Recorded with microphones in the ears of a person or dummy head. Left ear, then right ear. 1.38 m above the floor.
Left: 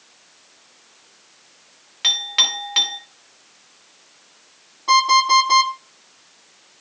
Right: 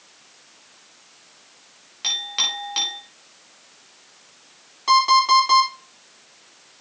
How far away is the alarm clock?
About 8.5 m.